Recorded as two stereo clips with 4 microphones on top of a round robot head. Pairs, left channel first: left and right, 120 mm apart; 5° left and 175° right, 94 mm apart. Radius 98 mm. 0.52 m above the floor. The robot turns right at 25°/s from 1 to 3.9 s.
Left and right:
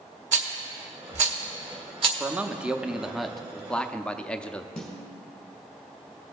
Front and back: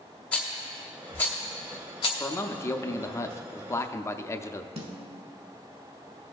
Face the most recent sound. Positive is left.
turn(degrees=175)